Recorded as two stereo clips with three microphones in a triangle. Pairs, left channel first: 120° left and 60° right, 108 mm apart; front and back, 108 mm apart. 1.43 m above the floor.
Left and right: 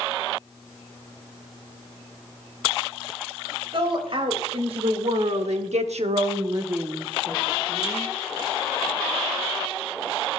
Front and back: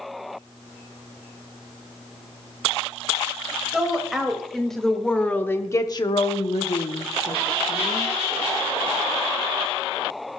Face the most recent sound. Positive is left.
turn(degrees=40)